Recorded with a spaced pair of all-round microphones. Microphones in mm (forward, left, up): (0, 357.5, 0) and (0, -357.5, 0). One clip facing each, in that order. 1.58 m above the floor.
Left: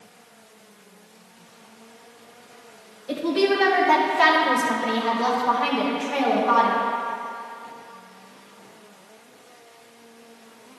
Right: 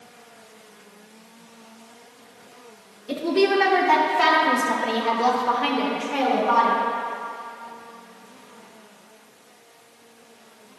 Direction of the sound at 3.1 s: 5° left (ahead or behind).